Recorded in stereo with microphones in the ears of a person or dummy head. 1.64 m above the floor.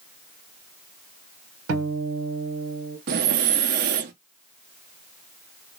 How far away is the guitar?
About 1.1 m.